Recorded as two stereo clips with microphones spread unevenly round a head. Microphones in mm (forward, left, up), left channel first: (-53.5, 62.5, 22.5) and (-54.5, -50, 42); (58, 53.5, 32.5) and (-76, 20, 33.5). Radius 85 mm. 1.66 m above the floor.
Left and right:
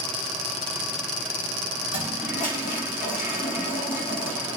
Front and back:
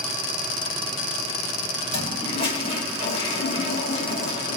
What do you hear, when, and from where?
1.9 s a toilet flushing: 55° left, 2.5 m